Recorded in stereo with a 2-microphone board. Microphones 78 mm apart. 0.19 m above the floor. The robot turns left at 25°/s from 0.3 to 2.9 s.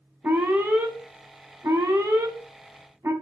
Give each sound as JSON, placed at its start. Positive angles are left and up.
{"t": 0.2, "sound": "an alarm", "side_deg": -20, "distance_m": 0.9}